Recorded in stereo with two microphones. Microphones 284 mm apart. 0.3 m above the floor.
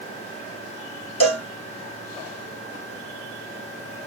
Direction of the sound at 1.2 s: 65° left (ahead or behind).